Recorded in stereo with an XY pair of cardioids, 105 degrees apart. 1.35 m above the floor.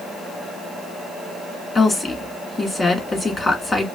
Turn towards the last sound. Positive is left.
turn(degrees=25)